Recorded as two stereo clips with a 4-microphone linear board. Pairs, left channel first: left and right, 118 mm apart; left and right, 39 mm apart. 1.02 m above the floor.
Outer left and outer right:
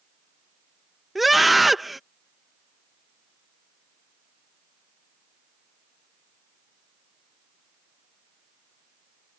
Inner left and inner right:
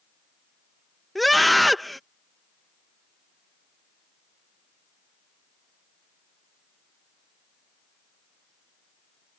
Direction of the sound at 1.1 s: Centre (ahead or behind).